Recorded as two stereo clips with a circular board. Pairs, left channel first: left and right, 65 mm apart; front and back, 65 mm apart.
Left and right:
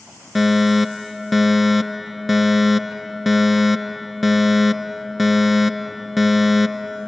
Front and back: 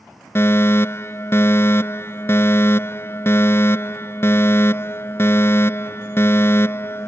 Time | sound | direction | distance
0.3 | a fire alarm | straight ahead | ?